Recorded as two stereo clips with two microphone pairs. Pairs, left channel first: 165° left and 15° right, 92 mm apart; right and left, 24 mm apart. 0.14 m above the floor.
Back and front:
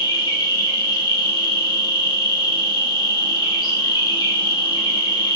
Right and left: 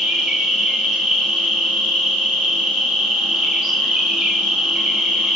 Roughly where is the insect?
Behind left.